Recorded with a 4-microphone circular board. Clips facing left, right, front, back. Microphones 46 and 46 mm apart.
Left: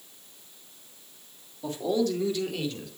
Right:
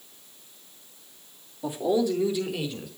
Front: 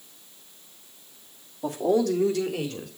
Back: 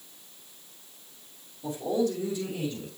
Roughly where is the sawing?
I don't hear sawing.